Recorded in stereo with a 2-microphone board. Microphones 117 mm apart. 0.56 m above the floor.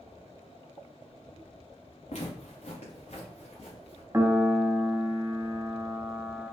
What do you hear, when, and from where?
2.1 s footsteps: 65° left (ahead or behind), 1.9 m; by 4.0 s 55° left (ahead or behind), 3 m
4.1 s a piano: 20° right (ahead or behind), 0.9 m